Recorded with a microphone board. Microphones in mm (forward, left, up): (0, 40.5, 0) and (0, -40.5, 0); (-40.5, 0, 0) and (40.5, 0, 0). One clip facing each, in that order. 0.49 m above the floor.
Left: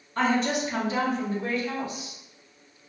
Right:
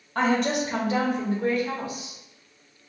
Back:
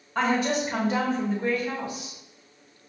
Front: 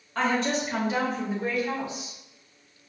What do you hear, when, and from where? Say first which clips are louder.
0.1 s a woman speaking: right 1 dB, back 1 dB; 100° right, 1.8 m; by 2.2 s 50° right, 1.2 m